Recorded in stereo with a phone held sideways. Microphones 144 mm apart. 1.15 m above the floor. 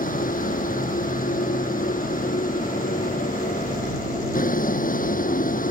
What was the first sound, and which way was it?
A vehicle, 70° left (ahead or behind).